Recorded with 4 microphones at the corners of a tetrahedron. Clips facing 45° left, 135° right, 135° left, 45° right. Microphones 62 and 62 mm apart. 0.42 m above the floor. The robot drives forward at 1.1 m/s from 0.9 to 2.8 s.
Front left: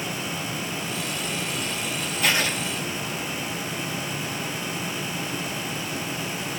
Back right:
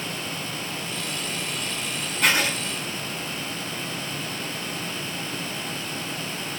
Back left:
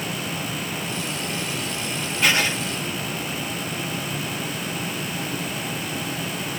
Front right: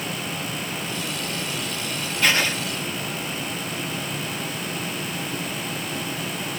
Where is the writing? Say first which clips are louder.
Back right 2 dB, even; 150° right, 5 m.